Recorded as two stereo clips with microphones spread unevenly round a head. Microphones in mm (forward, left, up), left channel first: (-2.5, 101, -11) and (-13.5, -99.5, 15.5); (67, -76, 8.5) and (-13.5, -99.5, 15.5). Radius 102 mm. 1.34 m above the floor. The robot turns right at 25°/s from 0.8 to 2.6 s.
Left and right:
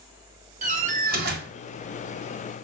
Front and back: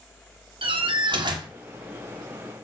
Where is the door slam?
145° right, 1.7 m; by 1.5 s 130° right, 1.7 m.